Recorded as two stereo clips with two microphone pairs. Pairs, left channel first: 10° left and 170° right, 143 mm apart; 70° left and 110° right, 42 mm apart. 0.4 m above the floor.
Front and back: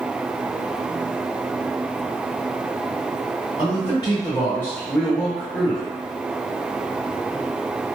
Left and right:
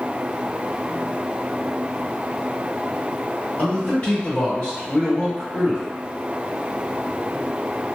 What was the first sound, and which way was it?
A man speaking, 35° left.